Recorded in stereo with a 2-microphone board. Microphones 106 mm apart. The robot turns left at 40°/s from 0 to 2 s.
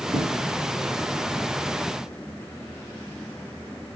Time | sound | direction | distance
0.1 | a thud | 70° right (ahead or behind) | 4 m